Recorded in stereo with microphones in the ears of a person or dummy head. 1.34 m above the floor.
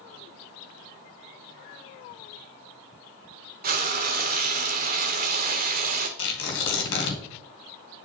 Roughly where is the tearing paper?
Left.